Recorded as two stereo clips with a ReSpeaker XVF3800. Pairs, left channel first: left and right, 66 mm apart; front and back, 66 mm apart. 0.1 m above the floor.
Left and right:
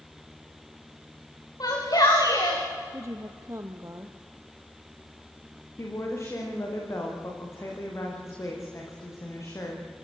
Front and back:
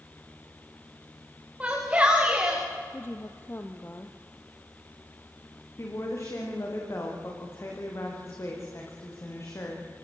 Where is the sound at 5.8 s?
45° left, 9 m.